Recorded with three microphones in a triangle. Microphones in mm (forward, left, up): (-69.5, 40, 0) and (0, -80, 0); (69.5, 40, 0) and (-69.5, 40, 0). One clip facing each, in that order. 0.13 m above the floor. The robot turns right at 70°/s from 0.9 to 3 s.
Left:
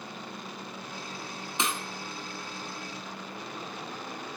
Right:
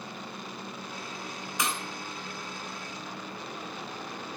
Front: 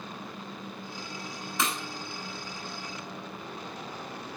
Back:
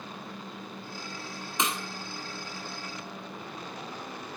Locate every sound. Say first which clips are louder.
1.6 s breaking glass: left 1 dB, back 1 dB; 135° left, 0.9 m; by 1.8 s 150° left, 0.9 m